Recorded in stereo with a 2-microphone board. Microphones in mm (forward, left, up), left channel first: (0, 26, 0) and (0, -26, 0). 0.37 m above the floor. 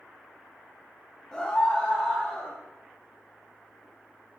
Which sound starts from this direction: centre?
A scream, at 1.3 s.